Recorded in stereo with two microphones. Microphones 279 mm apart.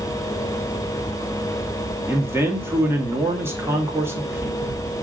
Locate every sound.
2.1 s a man speaking: 10° right (ahead or behind), 2 m